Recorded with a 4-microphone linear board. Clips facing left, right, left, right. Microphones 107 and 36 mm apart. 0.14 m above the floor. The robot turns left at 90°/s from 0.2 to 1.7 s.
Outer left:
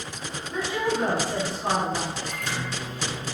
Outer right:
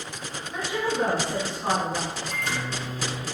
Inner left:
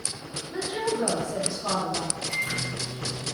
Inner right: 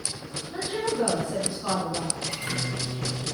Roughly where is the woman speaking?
Centre.